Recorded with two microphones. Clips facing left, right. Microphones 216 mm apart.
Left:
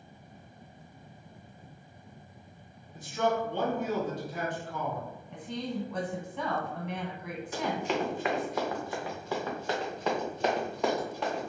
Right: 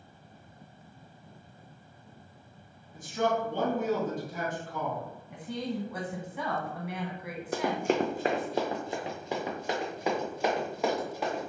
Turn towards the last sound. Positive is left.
turn(degrees=-5)  # may be behind; listen again after turning